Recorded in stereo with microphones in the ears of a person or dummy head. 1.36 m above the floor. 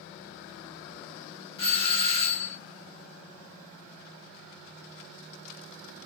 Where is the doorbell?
30° left (ahead or behind), 1.5 m.